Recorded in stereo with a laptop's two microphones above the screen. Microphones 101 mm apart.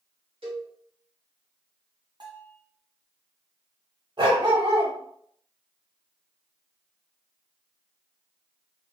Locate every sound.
0.4 s a cowbell: 70° right (ahead or behind), 2.0 m
2.2 s a bell: 50° right (ahead or behind), 2 m
4.2 s a dog barking: 55° right (ahead or behind), 1.6 m